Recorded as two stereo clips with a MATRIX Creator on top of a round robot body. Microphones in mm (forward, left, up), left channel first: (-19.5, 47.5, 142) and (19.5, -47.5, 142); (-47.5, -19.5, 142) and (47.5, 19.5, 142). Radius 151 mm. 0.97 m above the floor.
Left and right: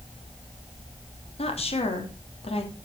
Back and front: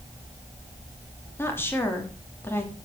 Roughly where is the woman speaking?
Behind left.